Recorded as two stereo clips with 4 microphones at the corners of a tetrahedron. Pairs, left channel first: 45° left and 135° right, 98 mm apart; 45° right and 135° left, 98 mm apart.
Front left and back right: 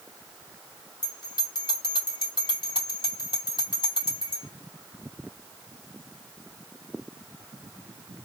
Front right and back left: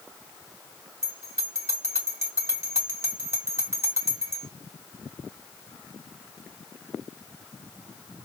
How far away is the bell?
About 2.5 m.